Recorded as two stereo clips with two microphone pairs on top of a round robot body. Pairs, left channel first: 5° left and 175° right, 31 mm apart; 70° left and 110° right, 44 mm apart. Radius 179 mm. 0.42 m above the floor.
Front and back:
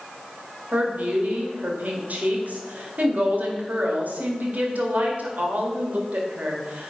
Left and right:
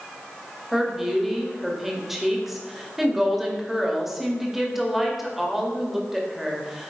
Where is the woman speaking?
170° left, 2 m.